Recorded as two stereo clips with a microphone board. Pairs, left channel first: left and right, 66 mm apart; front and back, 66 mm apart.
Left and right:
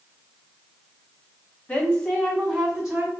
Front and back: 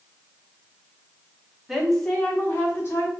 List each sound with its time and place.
1.7 s a woman speaking: 100° left, 0.6 m; by 3.1 s 20° right, 0.8 m